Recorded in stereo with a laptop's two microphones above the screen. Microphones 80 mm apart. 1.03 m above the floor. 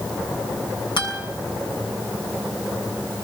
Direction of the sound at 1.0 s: 85° left.